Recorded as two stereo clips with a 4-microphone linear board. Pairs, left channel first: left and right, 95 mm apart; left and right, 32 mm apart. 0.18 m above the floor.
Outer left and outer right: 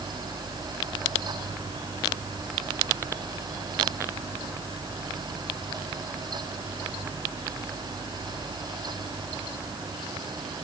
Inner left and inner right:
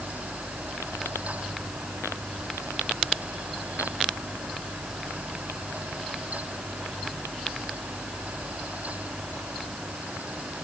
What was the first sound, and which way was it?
Only background noise.